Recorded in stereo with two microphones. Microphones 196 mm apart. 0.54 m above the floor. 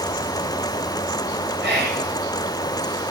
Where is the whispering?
60° right (ahead or behind), 2.5 m.